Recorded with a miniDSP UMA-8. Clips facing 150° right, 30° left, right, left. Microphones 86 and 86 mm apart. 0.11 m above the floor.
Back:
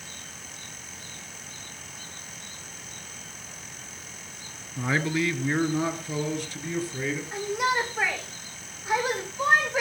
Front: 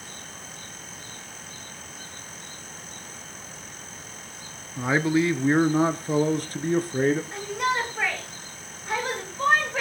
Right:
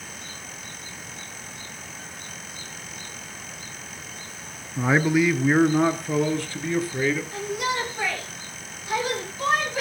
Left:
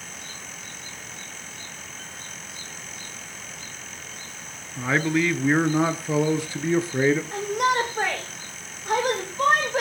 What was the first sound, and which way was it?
A man speaking, 30° right.